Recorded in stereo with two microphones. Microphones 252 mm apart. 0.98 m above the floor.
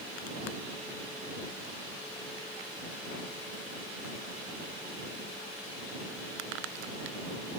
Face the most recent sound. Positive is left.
No sound to turn to.